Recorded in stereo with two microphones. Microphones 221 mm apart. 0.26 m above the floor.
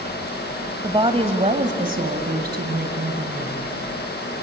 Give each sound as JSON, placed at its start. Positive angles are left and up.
{"t": 0.8, "sound": "a woman speaking", "side_deg": -20, "distance_m": 1.4}